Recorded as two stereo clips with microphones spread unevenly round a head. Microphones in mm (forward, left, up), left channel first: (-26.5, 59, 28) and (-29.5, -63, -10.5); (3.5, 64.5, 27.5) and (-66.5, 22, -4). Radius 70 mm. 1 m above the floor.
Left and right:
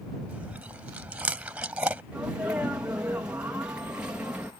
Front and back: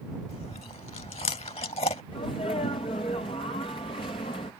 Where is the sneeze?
20° right.